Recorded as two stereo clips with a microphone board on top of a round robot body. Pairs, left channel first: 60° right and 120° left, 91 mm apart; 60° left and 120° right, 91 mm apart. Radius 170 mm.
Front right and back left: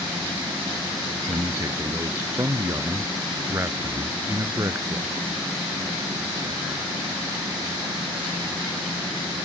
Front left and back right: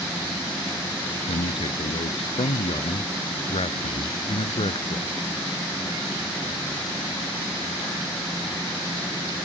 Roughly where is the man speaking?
Ahead left.